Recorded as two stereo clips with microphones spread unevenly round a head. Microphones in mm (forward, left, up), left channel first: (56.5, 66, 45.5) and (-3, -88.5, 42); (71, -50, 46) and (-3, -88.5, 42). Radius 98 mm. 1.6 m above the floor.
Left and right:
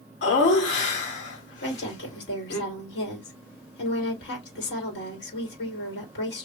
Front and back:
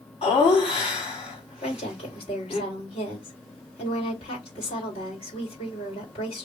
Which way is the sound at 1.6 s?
60° left.